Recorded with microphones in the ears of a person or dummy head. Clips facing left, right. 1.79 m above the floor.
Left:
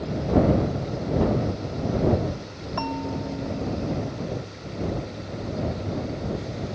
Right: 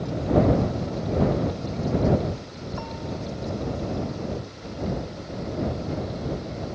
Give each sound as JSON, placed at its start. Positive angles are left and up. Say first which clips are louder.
{"t": 2.8, "sound": "a bell", "louder": "left 6 dB", "side_deg": 75}